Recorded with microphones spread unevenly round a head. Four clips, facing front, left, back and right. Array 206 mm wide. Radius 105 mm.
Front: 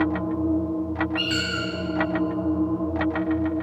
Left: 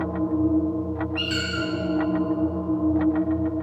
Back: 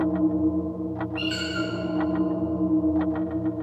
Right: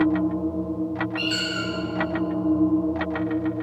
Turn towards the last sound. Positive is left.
turn(degrees=30)